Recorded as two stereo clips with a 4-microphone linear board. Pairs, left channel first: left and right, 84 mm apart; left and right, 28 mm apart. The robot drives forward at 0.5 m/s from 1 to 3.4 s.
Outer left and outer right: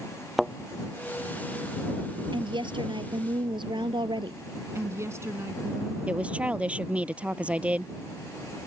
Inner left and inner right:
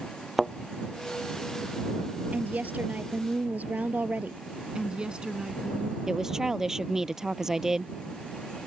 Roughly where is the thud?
Centre.